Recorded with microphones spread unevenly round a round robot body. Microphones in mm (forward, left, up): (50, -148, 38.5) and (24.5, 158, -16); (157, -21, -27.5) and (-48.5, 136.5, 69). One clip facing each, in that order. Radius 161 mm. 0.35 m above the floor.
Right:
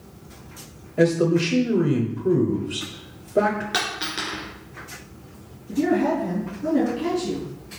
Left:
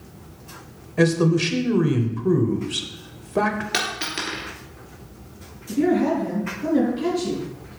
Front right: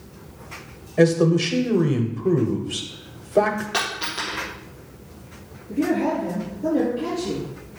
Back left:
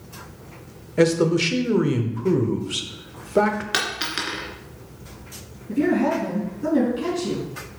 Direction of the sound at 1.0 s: 45° left.